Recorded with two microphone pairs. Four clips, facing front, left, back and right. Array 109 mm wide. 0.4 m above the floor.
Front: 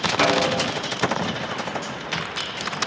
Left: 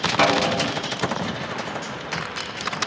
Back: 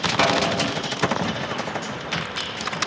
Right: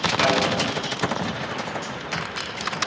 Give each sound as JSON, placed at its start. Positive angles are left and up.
{"t": 0.2, "sound": "a snare drum", "azimuth_deg": 120, "distance_m": 4.0}